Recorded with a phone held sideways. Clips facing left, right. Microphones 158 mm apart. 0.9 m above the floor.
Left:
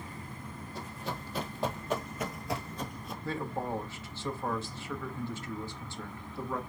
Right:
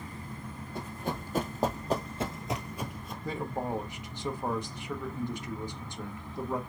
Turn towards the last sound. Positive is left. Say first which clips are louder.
# right 1 dB
turn(degrees=-15)  # may be behind; listen again after turning